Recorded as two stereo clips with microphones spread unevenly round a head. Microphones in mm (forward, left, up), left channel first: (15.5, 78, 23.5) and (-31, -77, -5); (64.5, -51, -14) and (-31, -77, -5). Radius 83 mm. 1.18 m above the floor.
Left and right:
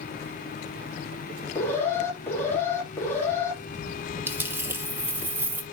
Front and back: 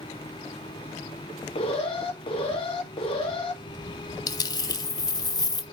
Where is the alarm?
5° right, 3 m.